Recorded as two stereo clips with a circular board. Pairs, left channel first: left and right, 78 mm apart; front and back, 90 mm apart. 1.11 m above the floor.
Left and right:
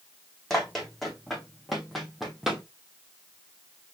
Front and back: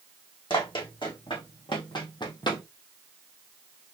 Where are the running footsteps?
5° left, 3 m; by 2.6 s 5° right, 1.8 m.